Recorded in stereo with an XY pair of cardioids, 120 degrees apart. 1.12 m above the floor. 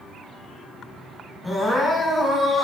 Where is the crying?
15° left, 5.5 m.